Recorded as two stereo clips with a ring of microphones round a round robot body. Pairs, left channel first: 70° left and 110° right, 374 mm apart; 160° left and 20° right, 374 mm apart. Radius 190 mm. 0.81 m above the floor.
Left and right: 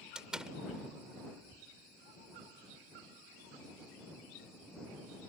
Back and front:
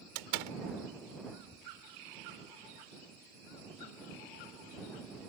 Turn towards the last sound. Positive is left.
turn(degrees=-25)